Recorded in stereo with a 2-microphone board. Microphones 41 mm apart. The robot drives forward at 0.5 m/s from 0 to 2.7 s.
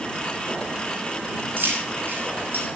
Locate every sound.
1.6 s keys jangling: 70° right (ahead or behind), 6 m; by 2.7 s 75° right (ahead or behind), 6 m